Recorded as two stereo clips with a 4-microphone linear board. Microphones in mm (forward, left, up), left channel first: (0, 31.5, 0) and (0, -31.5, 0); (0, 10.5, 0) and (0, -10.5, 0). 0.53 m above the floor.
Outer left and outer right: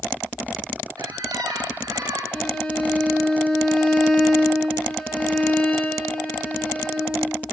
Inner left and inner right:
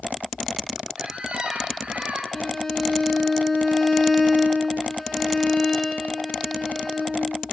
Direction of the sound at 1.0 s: 75° right (ahead or behind).